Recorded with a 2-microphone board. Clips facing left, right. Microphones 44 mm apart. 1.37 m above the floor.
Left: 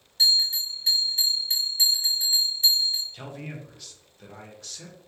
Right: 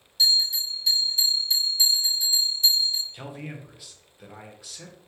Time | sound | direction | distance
0.2 | a bell | 35° left (ahead or behind) | 1.1 m
3.1 | a man speaking | 10° right (ahead or behind) | 0.6 m